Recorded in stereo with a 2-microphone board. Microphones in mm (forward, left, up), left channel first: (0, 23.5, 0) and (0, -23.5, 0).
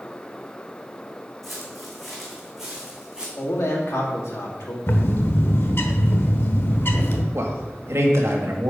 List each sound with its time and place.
1.4 s footsteps: 5° left (ahead or behind), 3 m; by 3.3 s 15° right (ahead or behind), 3.5 m
3.4 s a man speaking: 70° left (ahead or behind), 2 m
4.9 s a bird: 55° left (ahead or behind), 1.0 m
7.3 s a man speaking: 70° right (ahead or behind), 1.8 m